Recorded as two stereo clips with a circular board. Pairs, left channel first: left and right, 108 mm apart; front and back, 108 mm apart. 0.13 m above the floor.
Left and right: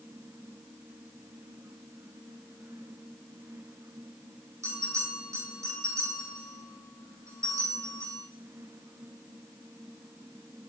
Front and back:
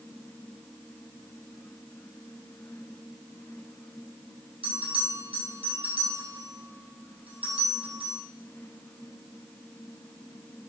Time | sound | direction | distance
4.6 | a bell | 150° right | 4 m